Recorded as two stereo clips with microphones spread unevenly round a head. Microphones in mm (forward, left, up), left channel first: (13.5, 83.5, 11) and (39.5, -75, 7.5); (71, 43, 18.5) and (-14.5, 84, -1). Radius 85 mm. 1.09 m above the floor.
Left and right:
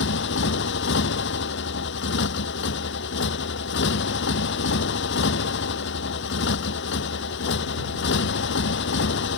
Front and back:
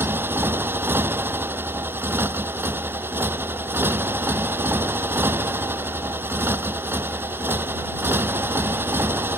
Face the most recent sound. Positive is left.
turn(degrees=85)